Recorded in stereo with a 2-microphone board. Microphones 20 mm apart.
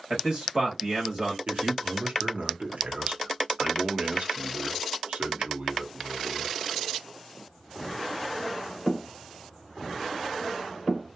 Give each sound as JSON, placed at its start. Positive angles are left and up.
{"t": 0.1, "sound": "a man speaking", "side_deg": -45, "distance_m": 1.1}
{"t": 1.5, "sound": "a man speaking", "side_deg": -80, "distance_m": 0.7}